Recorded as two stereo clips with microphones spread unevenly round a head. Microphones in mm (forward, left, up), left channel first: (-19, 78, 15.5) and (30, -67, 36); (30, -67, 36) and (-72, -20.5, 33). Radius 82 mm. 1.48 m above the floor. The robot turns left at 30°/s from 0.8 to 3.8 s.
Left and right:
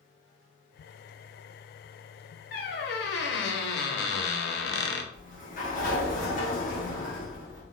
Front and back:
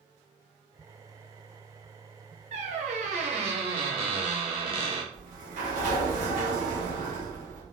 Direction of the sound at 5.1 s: 150° left.